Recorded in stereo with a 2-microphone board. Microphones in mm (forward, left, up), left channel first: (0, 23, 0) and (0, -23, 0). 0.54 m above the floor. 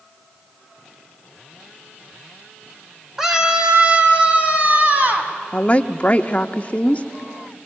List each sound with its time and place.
3.2 s a scream: 10° right (ahead or behind), 2.0 m; by 5.3 s 40° right (ahead or behind), 5 m
5.5 s a woman speaking: 30° left (ahead or behind), 0.8 m